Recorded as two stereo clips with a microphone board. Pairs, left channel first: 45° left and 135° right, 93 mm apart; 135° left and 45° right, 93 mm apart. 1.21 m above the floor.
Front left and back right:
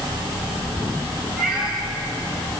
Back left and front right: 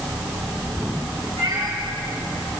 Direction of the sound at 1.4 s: 55° right.